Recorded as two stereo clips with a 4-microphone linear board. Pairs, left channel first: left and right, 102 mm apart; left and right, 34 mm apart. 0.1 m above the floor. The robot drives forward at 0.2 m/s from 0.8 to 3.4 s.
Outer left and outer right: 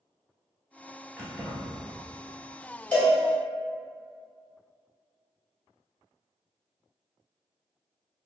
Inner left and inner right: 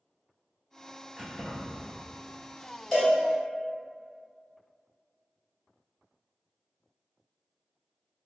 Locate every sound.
1.2 s keys jangling: 5° right (ahead or behind), 0.9 m
2.9 s a cowbell: 10° left (ahead or behind), 1.2 m